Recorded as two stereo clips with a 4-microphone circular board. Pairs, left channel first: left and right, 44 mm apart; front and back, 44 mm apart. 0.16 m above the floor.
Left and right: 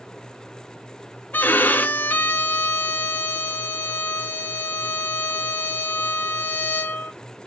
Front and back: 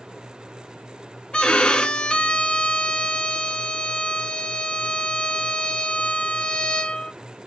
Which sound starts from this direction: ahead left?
A violin, at 1.3 s.